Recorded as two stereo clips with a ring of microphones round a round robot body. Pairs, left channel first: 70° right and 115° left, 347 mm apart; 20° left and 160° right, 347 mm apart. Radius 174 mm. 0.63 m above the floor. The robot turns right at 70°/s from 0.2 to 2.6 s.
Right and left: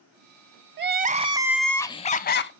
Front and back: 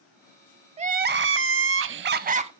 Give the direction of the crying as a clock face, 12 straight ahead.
7 o'clock.